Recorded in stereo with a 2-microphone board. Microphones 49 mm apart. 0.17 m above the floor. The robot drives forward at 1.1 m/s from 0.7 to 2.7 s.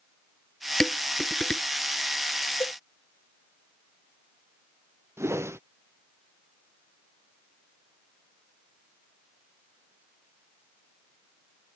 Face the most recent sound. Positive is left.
turn(degrees=-70)  # may be behind; listen again after turning